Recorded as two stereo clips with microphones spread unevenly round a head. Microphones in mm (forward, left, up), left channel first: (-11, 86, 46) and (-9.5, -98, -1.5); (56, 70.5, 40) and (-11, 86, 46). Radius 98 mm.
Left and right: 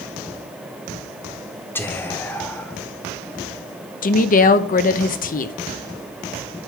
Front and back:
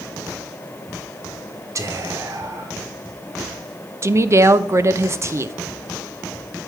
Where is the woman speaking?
135° left, 0.6 m.